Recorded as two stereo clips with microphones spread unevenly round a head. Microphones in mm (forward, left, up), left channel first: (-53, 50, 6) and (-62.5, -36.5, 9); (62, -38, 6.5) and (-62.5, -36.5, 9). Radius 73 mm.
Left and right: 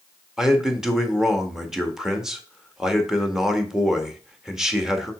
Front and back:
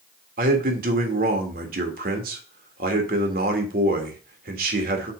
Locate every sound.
0.4 s a man speaking: straight behind, 1.8 m